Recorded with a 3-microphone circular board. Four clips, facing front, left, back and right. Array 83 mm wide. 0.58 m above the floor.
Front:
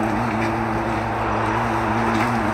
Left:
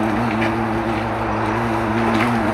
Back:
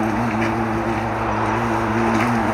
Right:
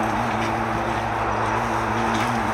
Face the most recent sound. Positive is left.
turn(degrees=110)